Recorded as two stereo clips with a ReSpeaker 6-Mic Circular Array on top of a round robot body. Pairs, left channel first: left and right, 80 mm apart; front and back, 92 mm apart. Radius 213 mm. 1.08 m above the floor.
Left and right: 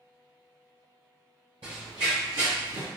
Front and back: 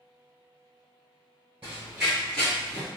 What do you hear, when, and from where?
1.6 s running footsteps: 115° right, 1.5 m; by 2.9 s 55° right, 1.6 m